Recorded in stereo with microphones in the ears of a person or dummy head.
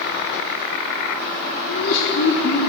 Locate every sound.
1.7 s laughter: 60° left (ahead or behind), 3.5 m